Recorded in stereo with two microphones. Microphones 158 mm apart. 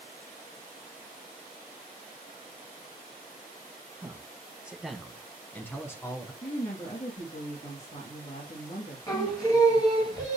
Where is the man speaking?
20° right (ahead or behind), 1.0 m; by 6.3 s 20° left (ahead or behind), 1.6 m.